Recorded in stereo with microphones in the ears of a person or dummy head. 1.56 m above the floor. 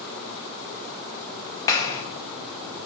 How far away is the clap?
About 0.8 m.